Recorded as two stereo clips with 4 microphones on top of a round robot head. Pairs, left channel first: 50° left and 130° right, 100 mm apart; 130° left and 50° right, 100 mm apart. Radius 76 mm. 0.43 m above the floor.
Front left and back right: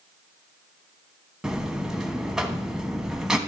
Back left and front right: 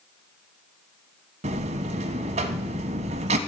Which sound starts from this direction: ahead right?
A buzzer, at 1.4 s.